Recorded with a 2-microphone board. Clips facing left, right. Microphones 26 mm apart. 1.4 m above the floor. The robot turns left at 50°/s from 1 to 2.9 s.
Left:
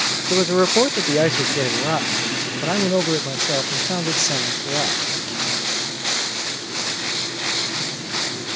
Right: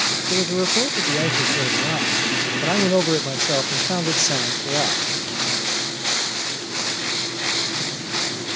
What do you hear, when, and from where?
0.3 s a man speaking: 85° left; by 5.0 s 10° right